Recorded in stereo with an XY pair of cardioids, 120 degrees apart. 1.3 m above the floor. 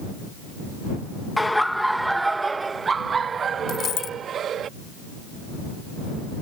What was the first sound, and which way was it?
Laughter, 10° left.